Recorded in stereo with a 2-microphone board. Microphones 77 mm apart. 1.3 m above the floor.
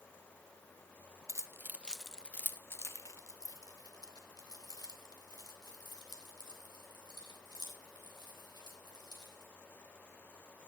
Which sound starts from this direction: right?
Keys jangling, at 1.3 s.